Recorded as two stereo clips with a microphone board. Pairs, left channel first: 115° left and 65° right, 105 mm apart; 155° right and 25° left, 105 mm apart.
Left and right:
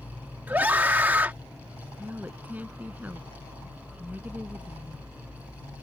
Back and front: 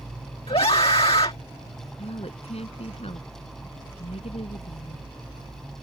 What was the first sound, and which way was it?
A scream, 140° right.